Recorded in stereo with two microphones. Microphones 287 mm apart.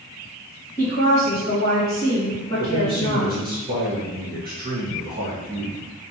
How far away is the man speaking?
About 1.8 m.